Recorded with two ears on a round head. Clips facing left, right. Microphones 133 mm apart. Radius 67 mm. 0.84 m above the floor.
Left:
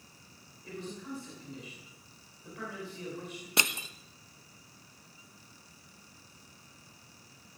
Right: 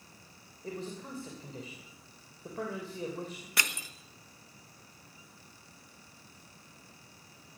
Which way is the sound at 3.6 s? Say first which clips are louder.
Left 4 dB; 20° left (ahead or behind).